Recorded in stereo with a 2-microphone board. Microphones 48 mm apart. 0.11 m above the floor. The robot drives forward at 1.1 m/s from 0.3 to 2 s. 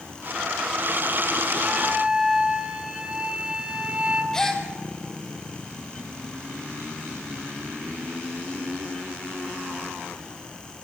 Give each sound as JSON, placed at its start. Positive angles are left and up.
{"t": 1.6, "sound": "a flute", "side_deg": -25, "distance_m": 2.0}
{"t": 4.3, "sound": "a gasp", "side_deg": 10, "distance_m": 1.8}